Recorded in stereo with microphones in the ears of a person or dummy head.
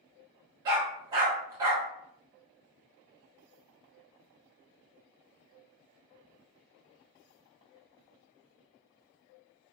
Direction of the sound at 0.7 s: 25° right (ahead or behind).